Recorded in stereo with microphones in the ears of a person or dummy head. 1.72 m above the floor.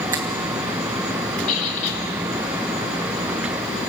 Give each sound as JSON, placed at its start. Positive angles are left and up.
{"t": 0.1, "sound": "a finger snap", "side_deg": -15, "distance_m": 0.8}
{"t": 1.5, "sound": "a squeak", "side_deg": 40, "distance_m": 5.0}